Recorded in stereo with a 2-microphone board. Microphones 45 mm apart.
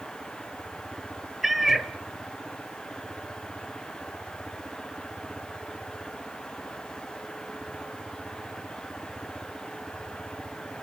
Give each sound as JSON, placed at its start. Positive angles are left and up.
{"t": 1.4, "sound": "a cat meowing", "side_deg": -5, "distance_m": 0.6}